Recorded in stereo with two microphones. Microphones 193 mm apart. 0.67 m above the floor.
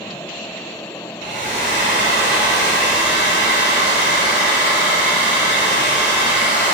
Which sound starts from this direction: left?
A hair dryer, at 1.2 s.